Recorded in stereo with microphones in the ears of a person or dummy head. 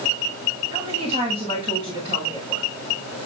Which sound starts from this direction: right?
A woman speaking, at 0.7 s.